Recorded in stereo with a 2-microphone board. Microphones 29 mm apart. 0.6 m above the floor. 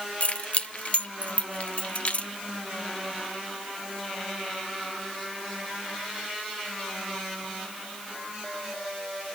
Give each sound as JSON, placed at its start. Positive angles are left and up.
{"t": 0.2, "sound": "keys jangling", "side_deg": 45, "distance_m": 0.8}